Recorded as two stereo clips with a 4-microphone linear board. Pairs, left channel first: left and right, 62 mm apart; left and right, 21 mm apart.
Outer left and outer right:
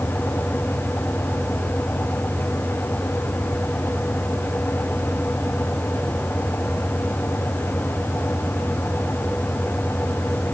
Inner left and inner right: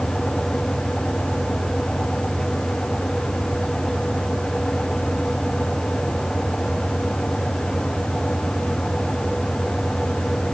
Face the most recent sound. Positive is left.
No sound to turn to.